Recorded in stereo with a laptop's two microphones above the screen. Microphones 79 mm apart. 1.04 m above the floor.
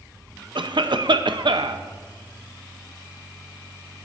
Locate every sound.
0.6 s a cough: 75° right (ahead or behind), 0.7 m